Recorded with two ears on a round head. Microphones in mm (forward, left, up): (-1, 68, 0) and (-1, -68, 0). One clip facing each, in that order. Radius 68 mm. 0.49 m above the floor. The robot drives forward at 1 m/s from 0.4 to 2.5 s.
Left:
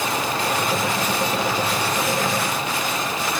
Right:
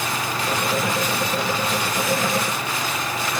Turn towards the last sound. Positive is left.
No sound to turn to.